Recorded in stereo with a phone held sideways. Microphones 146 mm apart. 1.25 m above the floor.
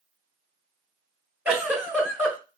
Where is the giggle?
10° right (ahead or behind), 1.3 m.